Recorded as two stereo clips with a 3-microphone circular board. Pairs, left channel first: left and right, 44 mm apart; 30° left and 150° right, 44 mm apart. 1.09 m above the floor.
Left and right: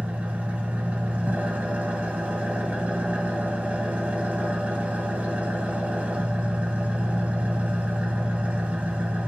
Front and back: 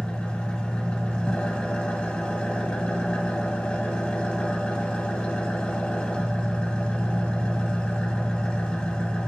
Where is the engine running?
35° right, 0.8 m.